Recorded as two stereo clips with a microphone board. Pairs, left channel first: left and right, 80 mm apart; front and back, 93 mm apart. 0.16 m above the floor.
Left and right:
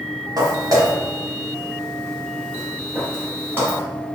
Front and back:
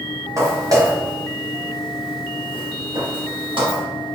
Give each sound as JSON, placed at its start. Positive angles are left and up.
{"t": 0.4, "sound": "footsteps", "azimuth_deg": -125, "distance_m": 2.0}